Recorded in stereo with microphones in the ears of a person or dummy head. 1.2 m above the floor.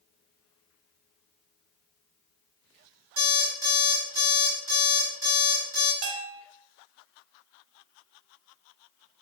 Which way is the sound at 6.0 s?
60° right (ahead or behind).